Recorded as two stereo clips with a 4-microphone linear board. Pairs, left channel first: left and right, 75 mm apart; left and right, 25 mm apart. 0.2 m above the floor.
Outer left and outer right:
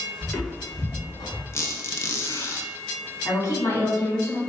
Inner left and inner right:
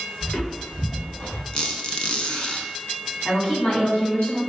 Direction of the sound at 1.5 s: 40° left (ahead or behind).